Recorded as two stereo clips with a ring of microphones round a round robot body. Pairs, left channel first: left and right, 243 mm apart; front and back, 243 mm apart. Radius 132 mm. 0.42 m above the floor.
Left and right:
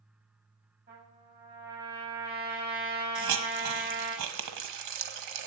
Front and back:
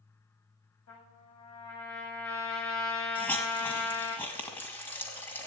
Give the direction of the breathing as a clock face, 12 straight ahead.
No breathing in this recording.